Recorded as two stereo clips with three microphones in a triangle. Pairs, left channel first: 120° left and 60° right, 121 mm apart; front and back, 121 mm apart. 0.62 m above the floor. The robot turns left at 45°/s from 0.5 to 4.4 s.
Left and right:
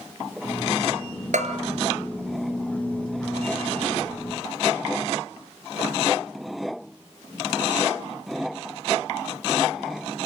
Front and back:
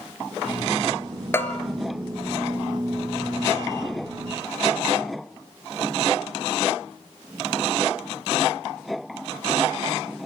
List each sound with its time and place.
1.3 s a bell: 70° right, 2.5 m; by 1.6 s 80° right, 2.5 m